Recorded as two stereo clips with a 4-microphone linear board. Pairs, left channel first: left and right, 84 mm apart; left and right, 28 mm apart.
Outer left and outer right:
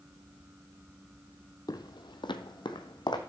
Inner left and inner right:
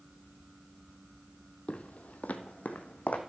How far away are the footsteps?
About 0.6 m.